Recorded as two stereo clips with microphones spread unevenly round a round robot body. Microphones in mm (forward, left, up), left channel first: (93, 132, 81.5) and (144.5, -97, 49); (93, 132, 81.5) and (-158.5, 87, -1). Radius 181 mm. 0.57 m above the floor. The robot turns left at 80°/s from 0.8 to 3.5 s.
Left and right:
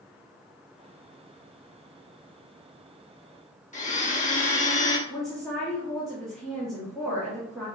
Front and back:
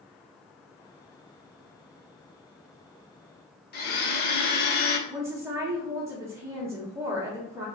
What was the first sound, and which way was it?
A blender, 50° left.